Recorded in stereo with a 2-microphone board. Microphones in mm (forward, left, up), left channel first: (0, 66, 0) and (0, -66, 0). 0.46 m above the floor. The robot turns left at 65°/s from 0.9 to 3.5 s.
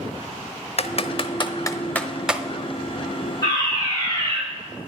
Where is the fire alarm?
30° left (ahead or behind), 5.5 m; by 4.4 s 25° left (ahead or behind), 5.5 m.